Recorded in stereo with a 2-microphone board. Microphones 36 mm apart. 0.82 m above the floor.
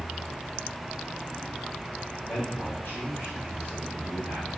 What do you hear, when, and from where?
2.2 s a man speaking: 50° left (ahead or behind), 3 m; by 4.5 s 65° left (ahead or behind), 1.8 m